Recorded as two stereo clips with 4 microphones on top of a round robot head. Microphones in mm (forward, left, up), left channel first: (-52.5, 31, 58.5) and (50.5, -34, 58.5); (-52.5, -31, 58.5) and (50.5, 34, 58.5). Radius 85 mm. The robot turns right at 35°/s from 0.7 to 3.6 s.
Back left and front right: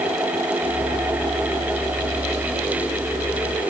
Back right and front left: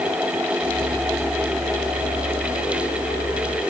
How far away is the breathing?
No breathing in this recording.